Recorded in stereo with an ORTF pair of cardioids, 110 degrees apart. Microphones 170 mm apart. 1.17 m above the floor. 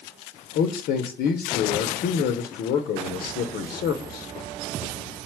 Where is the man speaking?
65° left, 0.7 m.